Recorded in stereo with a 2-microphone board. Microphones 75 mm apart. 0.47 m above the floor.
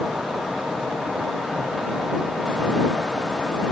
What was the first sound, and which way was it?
Only background noise.